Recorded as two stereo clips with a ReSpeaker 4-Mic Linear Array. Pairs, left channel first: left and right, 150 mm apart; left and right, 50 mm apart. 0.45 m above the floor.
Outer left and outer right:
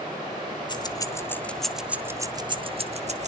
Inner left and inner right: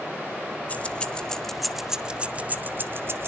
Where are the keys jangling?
30° left (ahead or behind), 1.2 m; by 3.3 s 50° right (ahead or behind), 1.2 m.